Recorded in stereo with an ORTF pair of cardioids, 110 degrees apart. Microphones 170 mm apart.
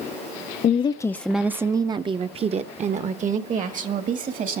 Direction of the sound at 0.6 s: 40° left.